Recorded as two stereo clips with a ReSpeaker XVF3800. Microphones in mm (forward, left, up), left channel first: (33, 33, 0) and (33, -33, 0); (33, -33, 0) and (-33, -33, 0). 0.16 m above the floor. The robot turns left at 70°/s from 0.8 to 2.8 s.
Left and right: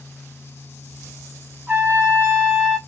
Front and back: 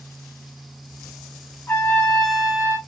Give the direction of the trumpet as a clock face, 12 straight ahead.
1 o'clock.